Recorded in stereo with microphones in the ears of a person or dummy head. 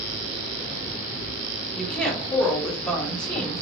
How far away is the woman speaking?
About 1.2 m.